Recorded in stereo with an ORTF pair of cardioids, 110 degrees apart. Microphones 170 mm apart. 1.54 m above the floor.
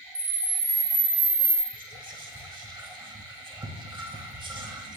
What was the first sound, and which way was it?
A camera shutter, 40° right.